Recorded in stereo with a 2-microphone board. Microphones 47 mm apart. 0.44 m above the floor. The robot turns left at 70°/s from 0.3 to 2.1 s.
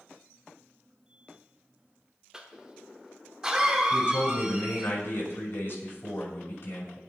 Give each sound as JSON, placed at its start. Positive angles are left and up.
{"t": 2.3, "sound": "a cough", "side_deg": -15, "distance_m": 1.0}
{"t": 3.9, "sound": "a man speaking", "side_deg": 50, "distance_m": 5.5}